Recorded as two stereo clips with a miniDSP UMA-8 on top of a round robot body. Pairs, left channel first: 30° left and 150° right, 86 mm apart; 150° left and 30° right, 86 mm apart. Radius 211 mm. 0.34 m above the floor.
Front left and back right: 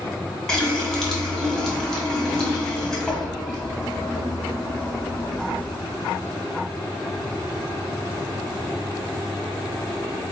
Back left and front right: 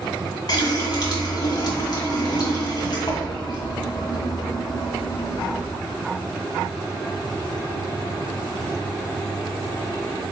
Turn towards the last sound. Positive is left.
turn(degrees=115)